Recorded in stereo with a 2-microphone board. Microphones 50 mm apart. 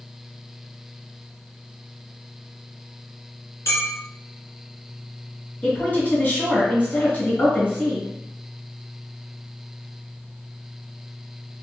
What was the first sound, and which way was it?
A clink, 60° left (ahead or behind).